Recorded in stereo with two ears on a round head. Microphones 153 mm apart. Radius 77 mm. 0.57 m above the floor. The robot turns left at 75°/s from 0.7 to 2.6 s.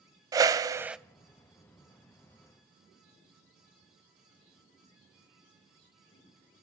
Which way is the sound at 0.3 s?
20° right (ahead or behind).